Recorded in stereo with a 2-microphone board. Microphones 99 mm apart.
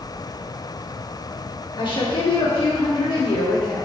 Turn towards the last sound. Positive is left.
turn(degrees=50)  # may be behind; listen again after turning